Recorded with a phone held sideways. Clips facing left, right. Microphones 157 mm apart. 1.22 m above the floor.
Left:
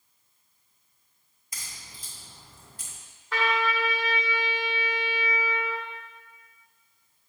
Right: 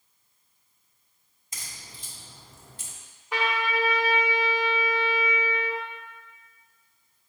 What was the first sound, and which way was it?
A crack, 25° right (ahead or behind).